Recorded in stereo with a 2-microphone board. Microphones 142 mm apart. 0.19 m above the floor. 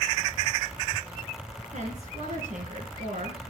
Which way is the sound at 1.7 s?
60° right (ahead or behind).